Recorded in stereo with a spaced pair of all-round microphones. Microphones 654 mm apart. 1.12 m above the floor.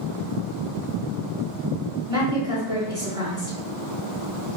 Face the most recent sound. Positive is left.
turn(degrees=-5)  # may be behind; listen again after turning